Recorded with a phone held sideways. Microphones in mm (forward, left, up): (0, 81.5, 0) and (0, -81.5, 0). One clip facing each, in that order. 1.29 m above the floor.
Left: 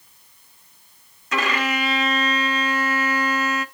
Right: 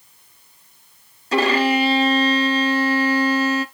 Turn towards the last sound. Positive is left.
turn(degrees=-30)  # may be behind; listen again after turning